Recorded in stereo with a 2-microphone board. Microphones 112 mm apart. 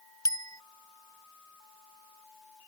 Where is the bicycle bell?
35° left (ahead or behind).